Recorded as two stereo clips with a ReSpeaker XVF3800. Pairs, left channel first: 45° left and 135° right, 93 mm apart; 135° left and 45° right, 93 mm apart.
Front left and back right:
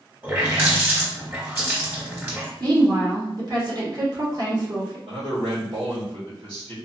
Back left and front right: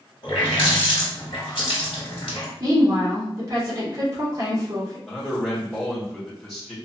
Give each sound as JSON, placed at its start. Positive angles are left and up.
{"t": 0.2, "sound": "a running tap", "azimuth_deg": 160, "distance_m": 1.5}
{"t": 2.6, "sound": "a woman speaking", "azimuth_deg": -95, "distance_m": 1.5}
{"t": 5.1, "sound": "a man speaking", "azimuth_deg": -135, "distance_m": 1.8}